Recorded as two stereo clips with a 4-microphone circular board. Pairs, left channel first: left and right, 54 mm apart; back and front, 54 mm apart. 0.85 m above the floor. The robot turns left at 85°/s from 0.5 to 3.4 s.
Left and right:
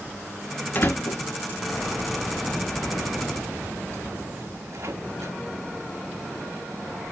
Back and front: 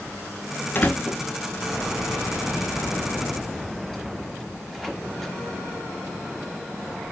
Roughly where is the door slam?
Behind left.